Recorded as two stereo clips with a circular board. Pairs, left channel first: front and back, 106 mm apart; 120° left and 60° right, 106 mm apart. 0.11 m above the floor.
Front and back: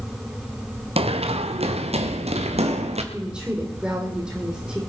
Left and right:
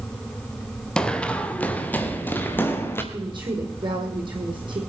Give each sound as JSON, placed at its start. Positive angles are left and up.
{"t": 1.0, "sound": "running footsteps", "azimuth_deg": -160, "distance_m": 1.6}
{"t": 3.1, "sound": "a woman speaking", "azimuth_deg": -100, "distance_m": 4.5}